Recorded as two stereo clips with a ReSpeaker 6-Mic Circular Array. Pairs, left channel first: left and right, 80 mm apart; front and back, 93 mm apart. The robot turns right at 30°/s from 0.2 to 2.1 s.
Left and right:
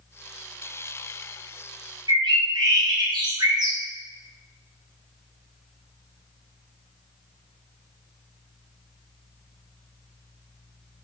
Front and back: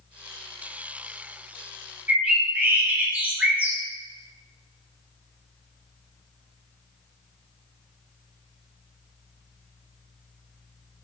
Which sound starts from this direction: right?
A bird, at 2.1 s.